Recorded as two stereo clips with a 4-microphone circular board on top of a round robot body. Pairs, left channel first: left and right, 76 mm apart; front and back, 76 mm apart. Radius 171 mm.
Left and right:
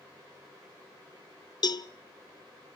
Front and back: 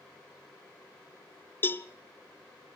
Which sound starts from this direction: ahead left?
A cowbell, at 1.6 s.